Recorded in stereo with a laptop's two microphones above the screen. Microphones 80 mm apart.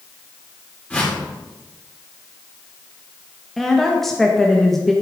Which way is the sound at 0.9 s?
15° left (ahead or behind).